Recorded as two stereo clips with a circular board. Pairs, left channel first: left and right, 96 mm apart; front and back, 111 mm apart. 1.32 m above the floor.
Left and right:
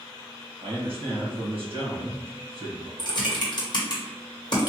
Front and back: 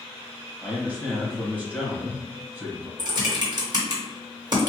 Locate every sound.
0.6 s a man speaking: 100° right, 1.3 m
3.0 s typing on a keyboard: 130° left, 1.0 m